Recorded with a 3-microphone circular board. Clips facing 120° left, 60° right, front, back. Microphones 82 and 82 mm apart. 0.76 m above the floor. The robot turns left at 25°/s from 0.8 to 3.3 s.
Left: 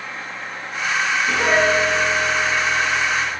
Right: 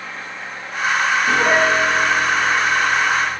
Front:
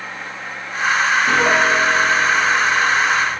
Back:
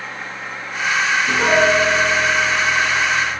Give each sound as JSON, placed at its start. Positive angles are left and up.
{"t": 1.3, "sound": "a piano", "azimuth_deg": -5, "distance_m": 2.5}